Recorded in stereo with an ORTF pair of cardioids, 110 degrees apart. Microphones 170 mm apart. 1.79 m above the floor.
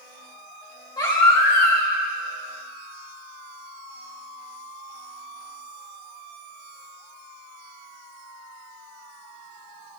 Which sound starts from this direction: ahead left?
A baby crying, at 1.0 s.